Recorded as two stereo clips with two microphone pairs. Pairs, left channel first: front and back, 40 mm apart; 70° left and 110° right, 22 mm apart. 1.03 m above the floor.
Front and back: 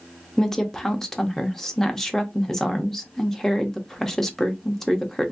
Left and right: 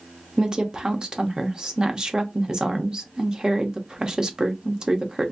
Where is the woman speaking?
70° right, 0.9 m.